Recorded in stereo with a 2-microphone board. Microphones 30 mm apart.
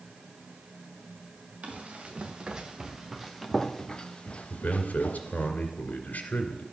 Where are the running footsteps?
45° right (ahead or behind), 3 m; by 5.5 s 60° left (ahead or behind), 2.5 m.